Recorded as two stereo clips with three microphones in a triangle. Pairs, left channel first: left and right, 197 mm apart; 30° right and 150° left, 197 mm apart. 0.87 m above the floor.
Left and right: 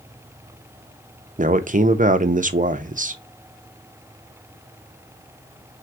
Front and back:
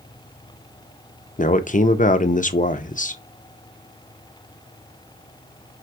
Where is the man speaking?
60° right, 0.6 m.